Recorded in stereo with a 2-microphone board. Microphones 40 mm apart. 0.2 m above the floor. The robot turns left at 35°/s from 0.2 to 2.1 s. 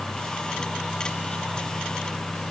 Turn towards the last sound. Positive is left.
No sound to turn to.